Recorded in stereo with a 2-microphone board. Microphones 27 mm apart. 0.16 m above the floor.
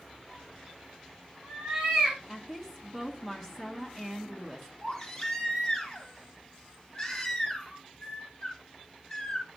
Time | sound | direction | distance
0.3 | a cat meowing | 20° right (ahead or behind) | 5.5 m
2.3 | a woman speaking | 10° right (ahead or behind) | 1.7 m
4.8 | a baby crying | 10° left (ahead or behind) | 4 m